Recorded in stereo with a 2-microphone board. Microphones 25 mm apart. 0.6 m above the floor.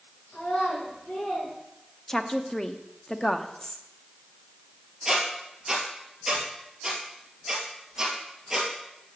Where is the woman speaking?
20° left (ahead or behind), 0.6 m.